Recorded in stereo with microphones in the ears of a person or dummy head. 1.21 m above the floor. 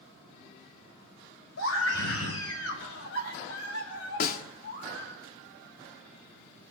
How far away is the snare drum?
About 1.1 m.